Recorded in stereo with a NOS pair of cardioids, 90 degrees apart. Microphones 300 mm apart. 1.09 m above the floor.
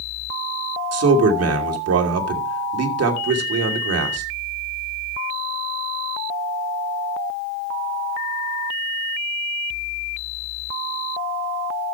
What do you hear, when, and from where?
0.9 s a man speaking: 55° right, 2.5 m